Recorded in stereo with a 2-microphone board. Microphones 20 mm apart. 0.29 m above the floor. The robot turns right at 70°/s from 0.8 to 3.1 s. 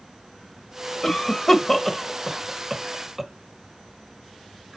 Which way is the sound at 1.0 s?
20° left (ahead or behind).